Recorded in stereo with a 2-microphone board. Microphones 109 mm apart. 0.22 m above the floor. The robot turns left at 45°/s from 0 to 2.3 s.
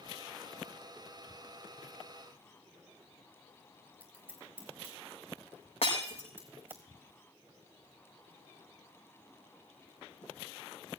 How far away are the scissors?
About 4.5 m.